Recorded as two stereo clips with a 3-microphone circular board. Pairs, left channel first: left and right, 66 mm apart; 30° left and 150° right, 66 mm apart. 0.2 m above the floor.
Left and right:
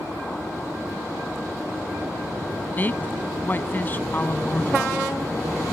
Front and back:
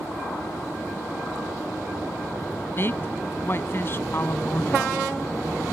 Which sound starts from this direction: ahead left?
A woman speaking, at 2.8 s.